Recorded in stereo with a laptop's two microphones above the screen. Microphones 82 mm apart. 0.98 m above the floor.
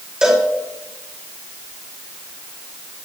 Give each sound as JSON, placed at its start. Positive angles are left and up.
{"t": 0.2, "sound": "a cowbell", "side_deg": -10, "distance_m": 2.5}